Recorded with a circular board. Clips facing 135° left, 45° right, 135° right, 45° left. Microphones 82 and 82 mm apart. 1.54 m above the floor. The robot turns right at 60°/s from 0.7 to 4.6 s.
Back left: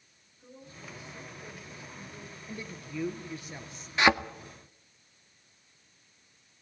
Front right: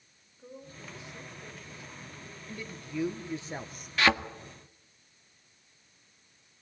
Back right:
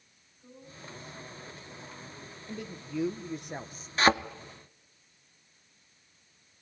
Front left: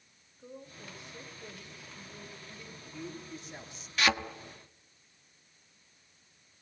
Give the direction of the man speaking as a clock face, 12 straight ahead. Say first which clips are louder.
Front right 1 dB, back right 10 dB; 5 o'clock.